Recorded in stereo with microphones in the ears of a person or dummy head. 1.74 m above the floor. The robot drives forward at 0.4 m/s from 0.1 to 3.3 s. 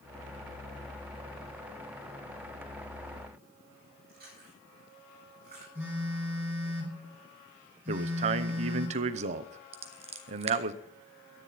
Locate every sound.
4.1 s chewing: 45° right (ahead or behind), 9 m
5.8 s a phone buzzing: 5° right (ahead or behind), 8.5 m
7.9 s a man speaking: 45° right (ahead or behind), 0.9 m
9.7 s scissors: 40° right (ahead or behind), 1.3 m